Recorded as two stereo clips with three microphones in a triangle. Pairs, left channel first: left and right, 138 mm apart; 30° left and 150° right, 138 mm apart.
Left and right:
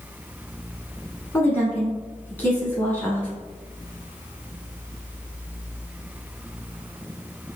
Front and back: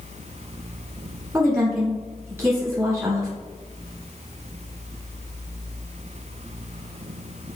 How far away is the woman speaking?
About 1.1 m.